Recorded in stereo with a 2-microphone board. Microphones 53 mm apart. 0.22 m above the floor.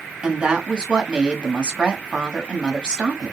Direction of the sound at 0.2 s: 20° right (ahead or behind).